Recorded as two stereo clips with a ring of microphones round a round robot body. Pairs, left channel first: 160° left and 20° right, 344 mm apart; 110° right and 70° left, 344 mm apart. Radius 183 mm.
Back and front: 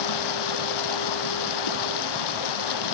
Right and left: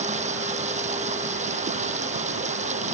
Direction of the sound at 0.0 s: 140° left.